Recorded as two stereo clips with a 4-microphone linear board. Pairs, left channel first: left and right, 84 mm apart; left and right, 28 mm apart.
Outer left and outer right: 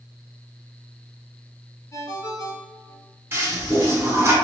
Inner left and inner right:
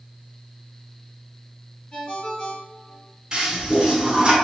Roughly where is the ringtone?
Left.